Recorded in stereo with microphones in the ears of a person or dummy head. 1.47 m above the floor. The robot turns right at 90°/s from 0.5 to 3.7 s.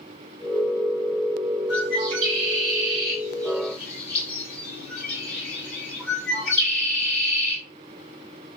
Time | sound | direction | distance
1.7 | a bird | 5° right (ahead or behind) | 7.5 m